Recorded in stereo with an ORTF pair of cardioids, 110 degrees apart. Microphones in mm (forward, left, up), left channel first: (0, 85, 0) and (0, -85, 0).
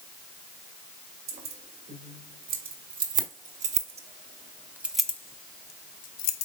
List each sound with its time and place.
1.3 s keys jangling: 60° right, 3 m; by 6.5 s 60° left, 1.2 m